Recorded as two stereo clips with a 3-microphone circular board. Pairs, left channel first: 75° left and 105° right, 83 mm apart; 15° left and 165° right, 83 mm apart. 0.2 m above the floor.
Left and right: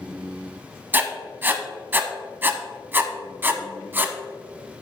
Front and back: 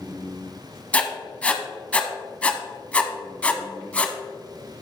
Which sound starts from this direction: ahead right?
Writing, at 0.9 s.